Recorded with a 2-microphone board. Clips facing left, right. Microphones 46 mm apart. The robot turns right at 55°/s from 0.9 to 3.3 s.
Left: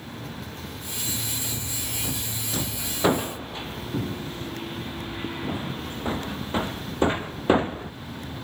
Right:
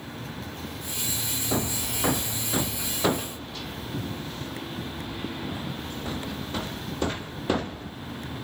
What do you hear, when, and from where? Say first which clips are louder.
1.5 s hammering: right 5 dB; 75° right (ahead or behind); by 7.9 s 25° left (ahead or behind)